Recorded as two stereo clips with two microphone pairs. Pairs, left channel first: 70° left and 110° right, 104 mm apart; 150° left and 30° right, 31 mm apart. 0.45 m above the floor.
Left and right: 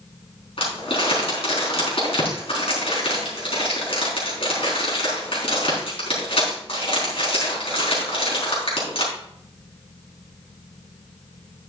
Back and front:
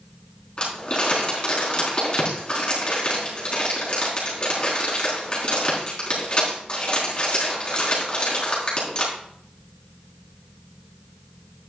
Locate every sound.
0.6 s crumpling: 95° left, 4 m